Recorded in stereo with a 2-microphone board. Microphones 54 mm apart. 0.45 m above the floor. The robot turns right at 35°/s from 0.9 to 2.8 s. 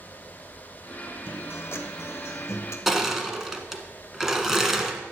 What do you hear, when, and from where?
1.2 s a guitar: 50° left, 1.2 m; by 2.8 s 105° left, 1.2 m
2.9 s crushing: 5° right (ahead or behind), 1.3 m